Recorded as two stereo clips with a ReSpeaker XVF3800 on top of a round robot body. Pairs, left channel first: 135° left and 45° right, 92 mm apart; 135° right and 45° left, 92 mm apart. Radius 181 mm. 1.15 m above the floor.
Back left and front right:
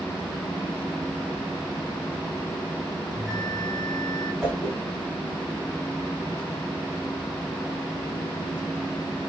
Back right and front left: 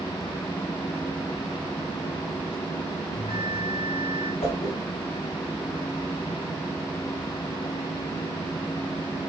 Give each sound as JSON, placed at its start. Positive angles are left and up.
{"t": 3.1, "sound": "a bell", "azimuth_deg": -140, "distance_m": 3.0}
{"t": 4.4, "sound": "a whoosh", "azimuth_deg": -135, "distance_m": 4.0}